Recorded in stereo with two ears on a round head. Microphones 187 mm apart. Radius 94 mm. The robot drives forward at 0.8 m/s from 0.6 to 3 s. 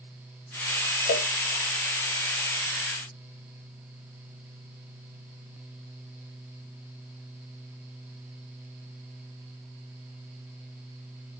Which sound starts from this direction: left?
A cowbell, at 1.1 s.